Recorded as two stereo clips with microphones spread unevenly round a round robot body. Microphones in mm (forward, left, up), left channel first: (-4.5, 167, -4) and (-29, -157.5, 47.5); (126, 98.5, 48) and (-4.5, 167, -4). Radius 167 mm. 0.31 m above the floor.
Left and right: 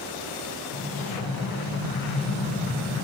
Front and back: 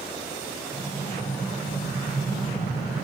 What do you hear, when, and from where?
0.7 s an explosion: 50° left, 5 m